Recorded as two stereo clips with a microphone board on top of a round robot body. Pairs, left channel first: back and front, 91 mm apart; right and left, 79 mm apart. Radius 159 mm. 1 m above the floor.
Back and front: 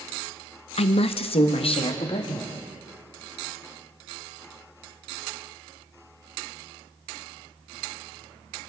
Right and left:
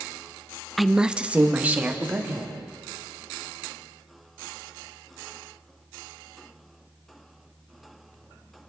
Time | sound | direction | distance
0.8 | a woman speaking | straight behind | 0.5 m